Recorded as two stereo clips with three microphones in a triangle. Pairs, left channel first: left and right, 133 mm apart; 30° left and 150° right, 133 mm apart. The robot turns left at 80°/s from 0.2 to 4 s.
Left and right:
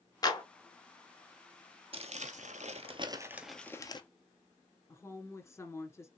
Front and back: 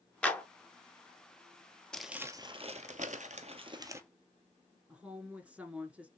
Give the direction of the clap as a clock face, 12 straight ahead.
9 o'clock.